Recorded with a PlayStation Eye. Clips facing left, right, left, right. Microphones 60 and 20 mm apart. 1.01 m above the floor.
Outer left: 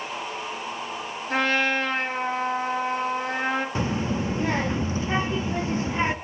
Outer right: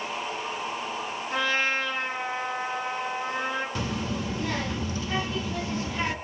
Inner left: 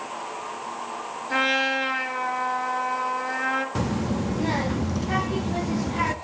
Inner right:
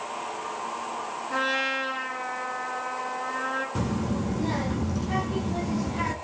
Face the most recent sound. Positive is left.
turn(degrees=30)  # may be behind; listen again after turning